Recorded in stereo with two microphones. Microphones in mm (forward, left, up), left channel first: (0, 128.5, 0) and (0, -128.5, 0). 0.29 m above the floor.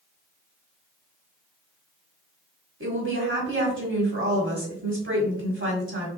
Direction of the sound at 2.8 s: 50° right (ahead or behind).